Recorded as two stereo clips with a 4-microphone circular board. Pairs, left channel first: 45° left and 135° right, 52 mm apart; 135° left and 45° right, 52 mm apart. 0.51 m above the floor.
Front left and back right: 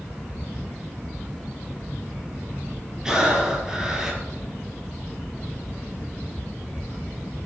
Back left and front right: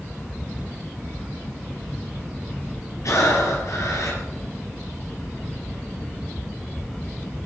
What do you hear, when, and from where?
3.0 s breathing: 150° left, 5.5 m